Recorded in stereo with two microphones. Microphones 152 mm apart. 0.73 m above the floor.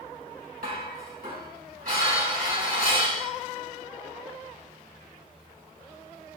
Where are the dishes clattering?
70° right (ahead or behind), 3 m.